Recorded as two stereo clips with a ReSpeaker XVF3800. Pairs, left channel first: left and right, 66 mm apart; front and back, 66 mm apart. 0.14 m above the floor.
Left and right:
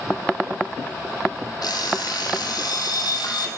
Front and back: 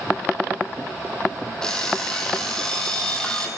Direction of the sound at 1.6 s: 80° left.